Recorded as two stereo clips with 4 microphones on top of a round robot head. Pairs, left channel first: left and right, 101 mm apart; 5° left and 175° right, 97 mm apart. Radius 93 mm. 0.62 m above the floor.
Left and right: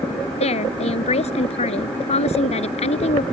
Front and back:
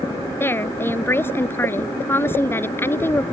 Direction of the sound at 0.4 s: 75° left.